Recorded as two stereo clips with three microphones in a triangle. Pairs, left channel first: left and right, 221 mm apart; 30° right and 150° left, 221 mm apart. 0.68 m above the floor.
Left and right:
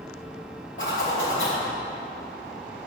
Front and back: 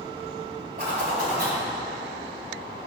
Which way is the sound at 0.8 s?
110° left.